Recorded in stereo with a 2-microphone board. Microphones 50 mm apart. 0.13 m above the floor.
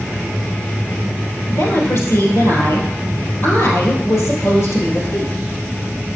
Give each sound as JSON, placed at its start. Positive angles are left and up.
{"t": 1.5, "sound": "a woman speaking", "side_deg": 65, "distance_m": 3.5}